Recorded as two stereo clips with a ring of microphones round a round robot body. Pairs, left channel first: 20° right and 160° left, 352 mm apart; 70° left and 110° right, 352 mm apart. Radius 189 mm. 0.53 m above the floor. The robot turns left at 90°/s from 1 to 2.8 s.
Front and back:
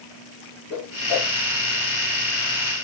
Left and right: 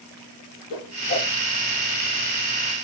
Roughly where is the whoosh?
Ahead left.